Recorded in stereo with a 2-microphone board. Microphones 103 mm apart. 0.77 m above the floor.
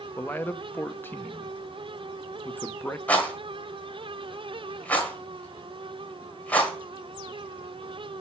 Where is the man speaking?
20° left (ahead or behind), 0.6 m.